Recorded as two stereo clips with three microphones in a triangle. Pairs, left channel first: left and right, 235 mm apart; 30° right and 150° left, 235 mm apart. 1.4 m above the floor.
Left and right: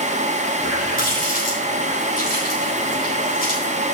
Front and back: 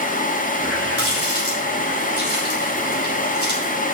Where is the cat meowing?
I don't hear a cat meowing.